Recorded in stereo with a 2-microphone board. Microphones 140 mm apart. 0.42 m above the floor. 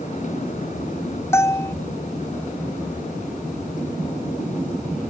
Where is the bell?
20° left (ahead or behind).